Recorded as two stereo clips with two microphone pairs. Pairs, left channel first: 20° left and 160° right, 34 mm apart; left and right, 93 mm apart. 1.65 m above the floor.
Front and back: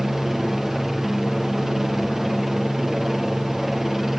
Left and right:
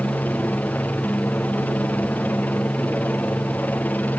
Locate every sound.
0.0 s a helicopter: 125° left